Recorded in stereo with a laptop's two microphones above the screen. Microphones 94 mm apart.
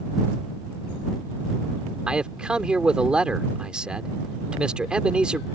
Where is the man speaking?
10° right (ahead or behind).